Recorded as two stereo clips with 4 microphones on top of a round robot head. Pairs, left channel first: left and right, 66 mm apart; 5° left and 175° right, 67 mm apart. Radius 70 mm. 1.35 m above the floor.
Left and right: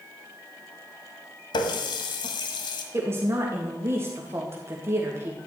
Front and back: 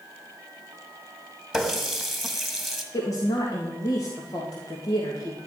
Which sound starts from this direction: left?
A running tap, at 1.5 s.